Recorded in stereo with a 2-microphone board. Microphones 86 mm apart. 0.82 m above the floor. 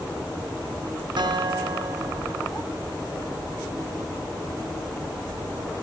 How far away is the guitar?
About 0.8 m.